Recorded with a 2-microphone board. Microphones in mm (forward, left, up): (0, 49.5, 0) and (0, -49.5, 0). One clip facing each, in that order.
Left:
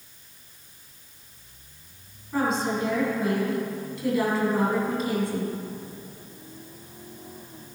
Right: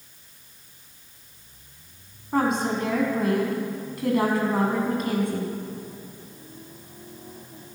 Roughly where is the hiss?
I don't hear a hiss.